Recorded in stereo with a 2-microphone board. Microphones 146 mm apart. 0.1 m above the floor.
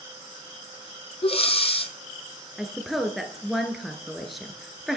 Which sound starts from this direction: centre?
A woman speaking, at 2.6 s.